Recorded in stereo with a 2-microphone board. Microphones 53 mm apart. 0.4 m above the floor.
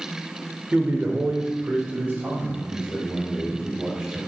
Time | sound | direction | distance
0.7 | a man speaking | 25° right (ahead or behind) | 1.2 m